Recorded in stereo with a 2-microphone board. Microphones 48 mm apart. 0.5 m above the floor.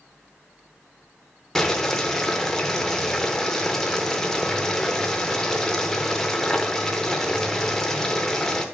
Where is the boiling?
10° left (ahead or behind), 0.6 m.